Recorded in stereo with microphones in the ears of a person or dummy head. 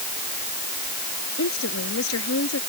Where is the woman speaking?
80° left.